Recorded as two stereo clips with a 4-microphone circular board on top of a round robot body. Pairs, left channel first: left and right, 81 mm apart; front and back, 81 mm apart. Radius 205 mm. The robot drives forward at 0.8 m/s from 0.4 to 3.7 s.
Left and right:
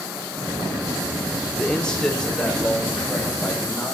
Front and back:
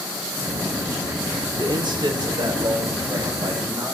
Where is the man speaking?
165° left, 1.0 m; by 4.0 s 175° left, 2.5 m.